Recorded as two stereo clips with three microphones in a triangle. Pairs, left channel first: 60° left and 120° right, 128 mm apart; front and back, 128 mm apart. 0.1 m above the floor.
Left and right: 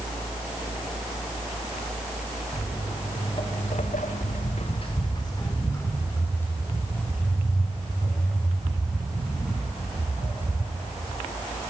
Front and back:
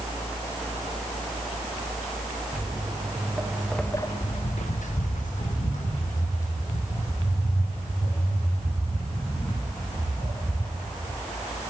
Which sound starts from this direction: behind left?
Footsteps, at 2.5 s.